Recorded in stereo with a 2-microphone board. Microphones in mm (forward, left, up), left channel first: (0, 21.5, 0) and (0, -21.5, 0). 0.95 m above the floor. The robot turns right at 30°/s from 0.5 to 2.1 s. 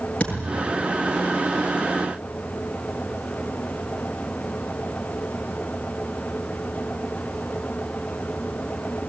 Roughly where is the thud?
Left.